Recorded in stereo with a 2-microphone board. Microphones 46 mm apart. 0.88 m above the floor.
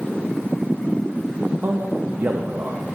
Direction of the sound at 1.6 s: 55° right (ahead or behind).